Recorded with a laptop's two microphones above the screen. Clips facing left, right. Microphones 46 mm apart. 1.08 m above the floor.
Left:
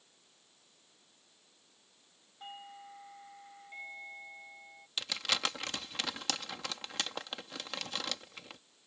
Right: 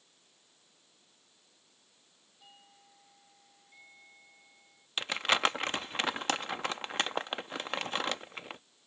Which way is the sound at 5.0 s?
35° right (ahead or behind).